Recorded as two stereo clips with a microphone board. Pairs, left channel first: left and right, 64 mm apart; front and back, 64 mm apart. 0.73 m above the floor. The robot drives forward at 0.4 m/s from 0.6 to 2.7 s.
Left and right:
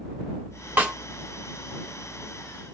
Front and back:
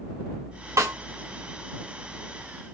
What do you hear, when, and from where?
0.8 s a snare drum: 155° right, 1.5 m